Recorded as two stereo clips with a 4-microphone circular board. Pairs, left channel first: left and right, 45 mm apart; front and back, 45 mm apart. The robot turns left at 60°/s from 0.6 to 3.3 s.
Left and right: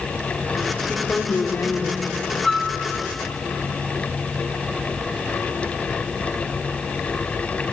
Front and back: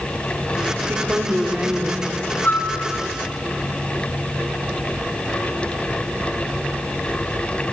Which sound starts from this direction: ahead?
A flute, at 2.4 s.